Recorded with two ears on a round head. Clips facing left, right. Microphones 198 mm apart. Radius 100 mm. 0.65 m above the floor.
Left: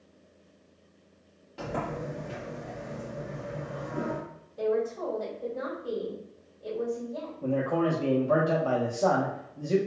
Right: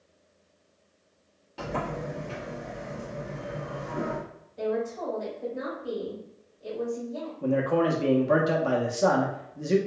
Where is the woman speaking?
Centre (ahead or behind), 1.7 m.